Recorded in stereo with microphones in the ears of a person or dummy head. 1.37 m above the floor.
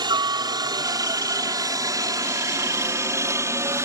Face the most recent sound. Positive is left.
turn(degrees=-15)  # may be behind; listen again after turning